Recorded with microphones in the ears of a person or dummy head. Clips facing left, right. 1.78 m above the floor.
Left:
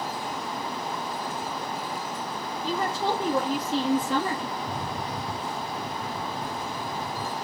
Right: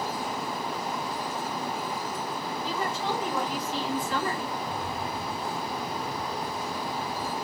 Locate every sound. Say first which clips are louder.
2.6 s a woman speaking: left 5 dB; 45° left (ahead or behind), 3.5 m; by 4.5 s 30° left (ahead or behind), 2.5 m
4.6 s a rattle: even; 55° left (ahead or behind), 2.5 m